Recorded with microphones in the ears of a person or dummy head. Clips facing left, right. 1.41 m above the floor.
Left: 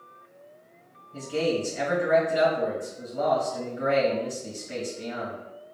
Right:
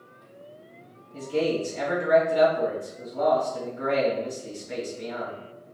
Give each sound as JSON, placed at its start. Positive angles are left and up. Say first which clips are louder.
{"t": 1.1, "sound": "a man speaking", "louder": "right 1 dB", "side_deg": 30, "distance_m": 1.8}